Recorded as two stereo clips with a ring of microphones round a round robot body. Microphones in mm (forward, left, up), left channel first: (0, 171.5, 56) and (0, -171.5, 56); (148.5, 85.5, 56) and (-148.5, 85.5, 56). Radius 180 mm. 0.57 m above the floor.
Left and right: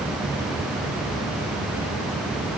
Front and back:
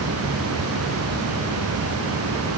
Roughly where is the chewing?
No chewing in this recording.